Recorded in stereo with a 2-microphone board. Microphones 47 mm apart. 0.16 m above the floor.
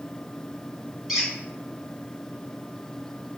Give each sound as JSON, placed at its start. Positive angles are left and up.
{"t": 1.1, "sound": "a squeak", "side_deg": -10, "distance_m": 1.3}